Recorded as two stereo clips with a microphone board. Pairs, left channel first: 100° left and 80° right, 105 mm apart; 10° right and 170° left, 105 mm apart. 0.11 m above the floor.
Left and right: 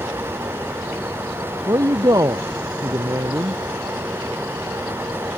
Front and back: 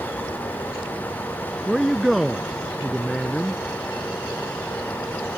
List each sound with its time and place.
1.7 s a man speaking: 105° right